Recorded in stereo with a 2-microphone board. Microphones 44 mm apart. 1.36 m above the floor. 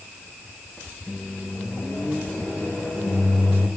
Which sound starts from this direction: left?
A microwave, at 1.1 s.